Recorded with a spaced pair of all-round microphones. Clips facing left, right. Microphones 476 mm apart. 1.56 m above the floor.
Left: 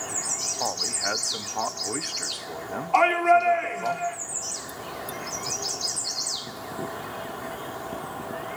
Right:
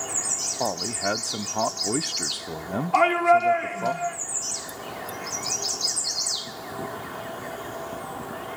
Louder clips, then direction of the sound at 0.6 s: Right 6 dB; 60° right (ahead or behind).